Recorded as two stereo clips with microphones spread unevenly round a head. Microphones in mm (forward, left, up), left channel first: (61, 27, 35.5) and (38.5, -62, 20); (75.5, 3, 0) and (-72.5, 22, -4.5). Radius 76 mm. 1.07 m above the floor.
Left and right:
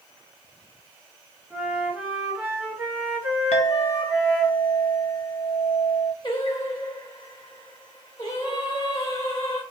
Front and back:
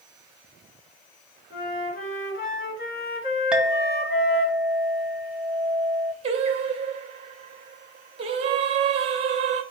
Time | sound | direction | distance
1.5 | a flute | 30° right | 2.0 m
3.5 | a clink | 85° left | 0.5 m
6.2 | singing | 125° left | 0.6 m